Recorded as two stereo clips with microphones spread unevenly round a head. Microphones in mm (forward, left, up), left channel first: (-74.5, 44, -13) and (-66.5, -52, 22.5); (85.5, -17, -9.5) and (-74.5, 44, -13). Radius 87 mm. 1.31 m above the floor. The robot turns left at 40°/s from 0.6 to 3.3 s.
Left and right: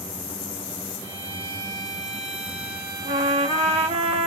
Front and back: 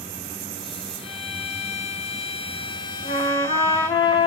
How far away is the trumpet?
About 0.6 m.